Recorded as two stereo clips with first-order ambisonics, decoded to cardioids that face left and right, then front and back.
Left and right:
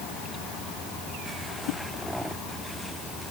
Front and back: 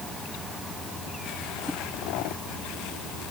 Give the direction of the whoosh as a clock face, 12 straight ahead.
9 o'clock.